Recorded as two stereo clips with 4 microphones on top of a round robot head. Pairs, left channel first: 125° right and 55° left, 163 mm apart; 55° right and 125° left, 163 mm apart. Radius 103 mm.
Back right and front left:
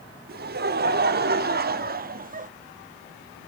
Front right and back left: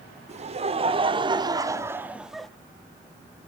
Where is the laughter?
75° left, 3 m; by 2.5 s 35° left, 1.8 m.